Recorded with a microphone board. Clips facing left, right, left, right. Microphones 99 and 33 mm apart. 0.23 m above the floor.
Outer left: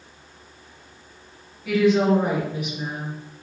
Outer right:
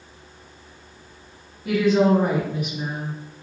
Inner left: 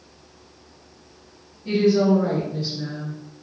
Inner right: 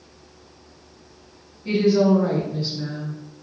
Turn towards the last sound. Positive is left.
turn(degrees=-55)  # may be behind; listen again after turning